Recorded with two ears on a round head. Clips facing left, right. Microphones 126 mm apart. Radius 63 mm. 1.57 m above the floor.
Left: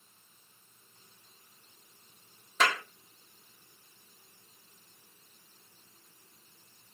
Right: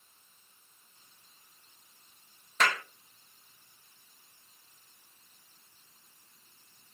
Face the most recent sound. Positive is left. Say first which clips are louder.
# left 1 dB
turn(degrees=5)  # may be behind; listen again after turning